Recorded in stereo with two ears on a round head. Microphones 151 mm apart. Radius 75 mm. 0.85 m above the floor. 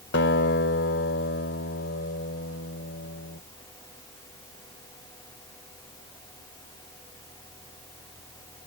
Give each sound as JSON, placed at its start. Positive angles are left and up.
{"t": 0.1, "sound": "a guitar", "side_deg": 75}